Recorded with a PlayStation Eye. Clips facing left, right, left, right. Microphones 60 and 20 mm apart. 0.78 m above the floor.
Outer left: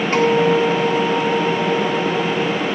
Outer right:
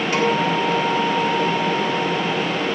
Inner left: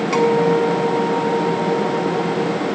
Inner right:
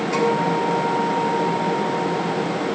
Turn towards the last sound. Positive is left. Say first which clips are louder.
# outer left 5 dB, inner left 5 dB
turn(degrees=45)  # may be behind; listen again after turning